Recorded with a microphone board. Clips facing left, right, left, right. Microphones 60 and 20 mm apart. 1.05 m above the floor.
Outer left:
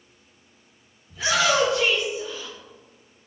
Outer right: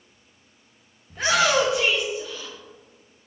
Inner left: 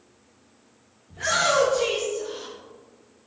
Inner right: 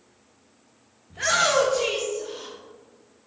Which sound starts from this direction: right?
A shout, at 1.1 s.